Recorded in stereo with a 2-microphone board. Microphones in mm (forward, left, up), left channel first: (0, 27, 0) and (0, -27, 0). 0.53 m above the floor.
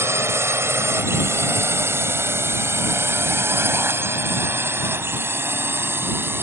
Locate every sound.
0.0 s a drone: 55° right (ahead or behind); by 6.4 s 45° right (ahead or behind)